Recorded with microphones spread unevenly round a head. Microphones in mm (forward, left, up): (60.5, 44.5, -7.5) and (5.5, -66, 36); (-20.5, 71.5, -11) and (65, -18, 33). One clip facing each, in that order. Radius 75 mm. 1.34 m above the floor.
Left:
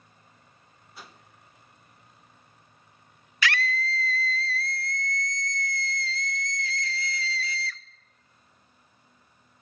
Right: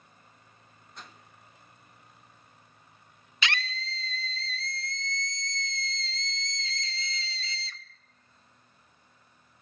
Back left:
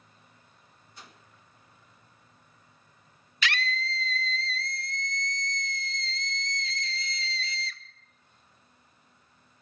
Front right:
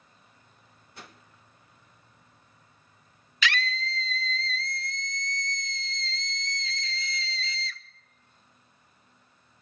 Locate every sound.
0.9 s a whoosh: 20° right, 1.0 m
3.4 s a scream: 50° right, 0.7 m